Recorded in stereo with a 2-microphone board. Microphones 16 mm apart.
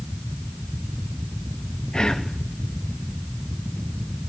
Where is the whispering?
40° left (ahead or behind), 0.9 m.